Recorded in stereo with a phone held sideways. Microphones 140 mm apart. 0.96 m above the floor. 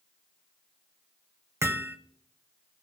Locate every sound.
1.6 s hammering: 20° right (ahead or behind), 1.1 m